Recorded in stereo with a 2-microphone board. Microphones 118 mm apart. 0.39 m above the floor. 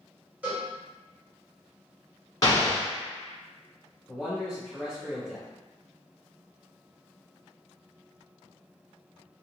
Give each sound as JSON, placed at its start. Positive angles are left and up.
{"t": 0.4, "sound": "a cowbell", "side_deg": -15, "distance_m": 1.6}
{"t": 2.4, "sound": "an explosion", "side_deg": 30, "distance_m": 0.9}
{"t": 4.1, "sound": "a man speaking", "side_deg": -20, "distance_m": 1.7}